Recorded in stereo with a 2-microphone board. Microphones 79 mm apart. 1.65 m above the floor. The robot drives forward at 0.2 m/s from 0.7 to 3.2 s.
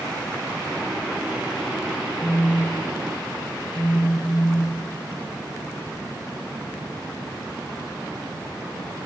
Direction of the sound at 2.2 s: 20° left (ahead or behind).